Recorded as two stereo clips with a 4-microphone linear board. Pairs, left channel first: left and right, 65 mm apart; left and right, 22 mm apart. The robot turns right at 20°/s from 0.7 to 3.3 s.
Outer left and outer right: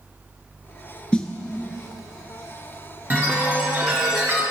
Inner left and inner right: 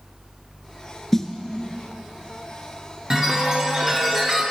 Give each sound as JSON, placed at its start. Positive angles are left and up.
{"t": 1.1, "sound": "a snare drum", "side_deg": 20, "distance_m": 0.6}
{"t": 3.1, "sound": "a chime", "side_deg": -30, "distance_m": 1.7}